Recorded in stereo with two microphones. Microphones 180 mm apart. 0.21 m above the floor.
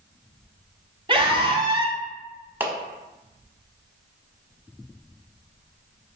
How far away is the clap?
About 0.8 m.